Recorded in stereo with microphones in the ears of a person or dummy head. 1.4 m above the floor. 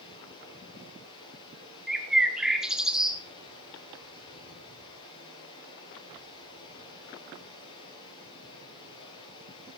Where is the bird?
5° right (ahead or behind), 1.2 m.